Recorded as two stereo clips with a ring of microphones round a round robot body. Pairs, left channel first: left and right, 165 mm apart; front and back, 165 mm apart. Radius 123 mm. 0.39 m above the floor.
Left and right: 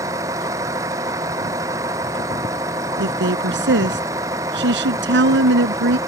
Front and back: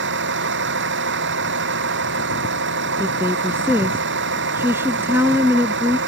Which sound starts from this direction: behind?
A vehicle, at 0.0 s.